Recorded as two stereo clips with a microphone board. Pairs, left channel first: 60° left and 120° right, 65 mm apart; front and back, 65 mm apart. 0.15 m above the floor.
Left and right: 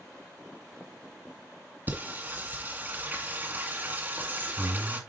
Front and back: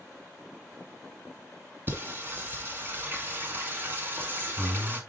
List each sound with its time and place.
1.9 s singing: 155° right, 1.6 m